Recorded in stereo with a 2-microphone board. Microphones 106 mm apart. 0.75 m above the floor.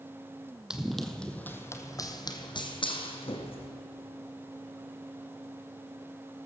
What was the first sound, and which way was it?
Running footsteps, 5° right (ahead or behind).